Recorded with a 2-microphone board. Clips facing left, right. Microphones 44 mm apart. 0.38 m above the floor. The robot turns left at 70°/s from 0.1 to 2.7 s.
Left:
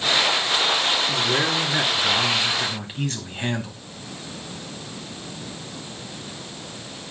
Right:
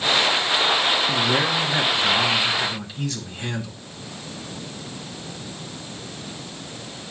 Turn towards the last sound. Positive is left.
turn(degrees=130)